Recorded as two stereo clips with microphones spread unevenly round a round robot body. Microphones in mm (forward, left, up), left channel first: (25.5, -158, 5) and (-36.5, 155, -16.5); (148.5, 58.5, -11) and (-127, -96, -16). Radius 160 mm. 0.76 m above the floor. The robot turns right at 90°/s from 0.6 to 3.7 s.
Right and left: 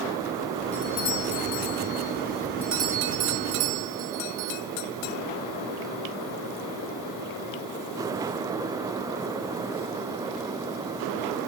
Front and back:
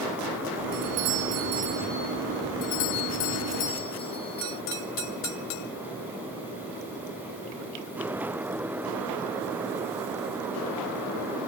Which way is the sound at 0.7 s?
165° right.